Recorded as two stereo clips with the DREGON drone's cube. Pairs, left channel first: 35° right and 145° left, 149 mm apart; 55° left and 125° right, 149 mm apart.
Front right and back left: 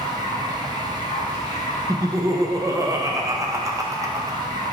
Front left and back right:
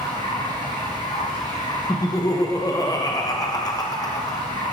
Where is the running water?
10° left, 1.7 m.